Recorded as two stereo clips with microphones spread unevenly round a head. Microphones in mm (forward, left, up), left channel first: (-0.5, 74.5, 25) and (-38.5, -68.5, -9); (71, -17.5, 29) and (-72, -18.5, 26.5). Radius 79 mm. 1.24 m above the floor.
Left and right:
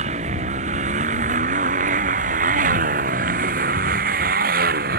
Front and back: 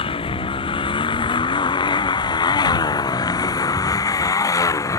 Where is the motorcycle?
55° right; by 5.0 s 70° right.